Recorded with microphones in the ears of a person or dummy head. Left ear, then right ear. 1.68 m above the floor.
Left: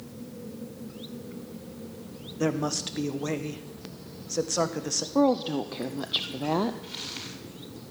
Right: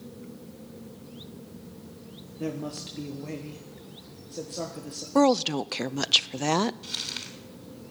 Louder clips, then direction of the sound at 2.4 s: Left 6 dB; 55° left (ahead or behind).